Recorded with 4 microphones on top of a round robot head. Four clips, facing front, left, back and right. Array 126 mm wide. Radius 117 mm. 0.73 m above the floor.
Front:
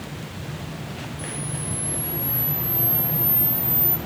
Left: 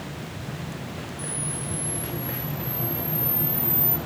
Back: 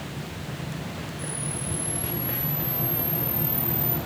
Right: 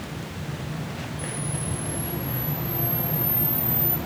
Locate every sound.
1.2 s a camera shutter: 45° left, 3 m